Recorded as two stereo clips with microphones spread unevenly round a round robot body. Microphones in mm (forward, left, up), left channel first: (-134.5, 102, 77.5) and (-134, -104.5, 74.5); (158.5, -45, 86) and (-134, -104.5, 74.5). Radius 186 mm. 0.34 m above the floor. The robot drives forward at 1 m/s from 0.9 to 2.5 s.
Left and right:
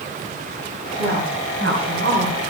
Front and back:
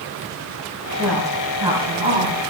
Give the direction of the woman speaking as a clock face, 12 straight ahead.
2 o'clock.